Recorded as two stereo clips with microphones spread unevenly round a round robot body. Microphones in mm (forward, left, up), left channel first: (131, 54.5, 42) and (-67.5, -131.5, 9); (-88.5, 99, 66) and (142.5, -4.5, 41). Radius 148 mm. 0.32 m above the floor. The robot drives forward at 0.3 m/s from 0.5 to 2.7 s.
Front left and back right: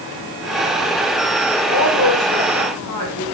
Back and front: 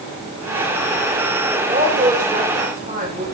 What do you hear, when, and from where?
1.7 s a woman speaking: 30° left, 6.5 m